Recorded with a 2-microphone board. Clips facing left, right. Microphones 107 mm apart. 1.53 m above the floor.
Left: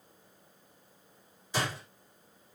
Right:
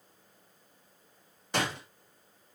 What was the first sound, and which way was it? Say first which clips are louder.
A door slam: right 2 dB; 65° right (ahead or behind).